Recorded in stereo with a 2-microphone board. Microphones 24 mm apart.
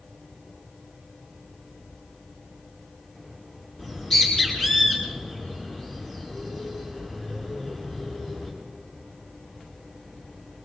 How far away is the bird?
About 8 m.